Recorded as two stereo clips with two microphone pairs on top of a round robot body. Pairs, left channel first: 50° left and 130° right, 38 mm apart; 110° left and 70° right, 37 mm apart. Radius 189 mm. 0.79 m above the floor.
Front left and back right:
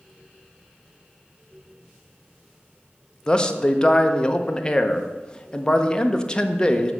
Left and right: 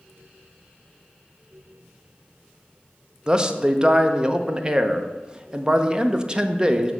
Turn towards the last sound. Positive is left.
turn(degrees=-20)